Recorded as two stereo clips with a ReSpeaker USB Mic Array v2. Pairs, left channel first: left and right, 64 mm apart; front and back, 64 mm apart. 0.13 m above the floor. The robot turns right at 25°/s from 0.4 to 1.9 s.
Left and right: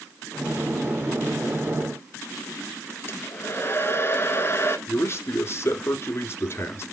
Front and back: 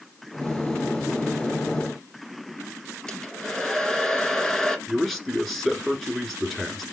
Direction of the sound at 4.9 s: 90° left.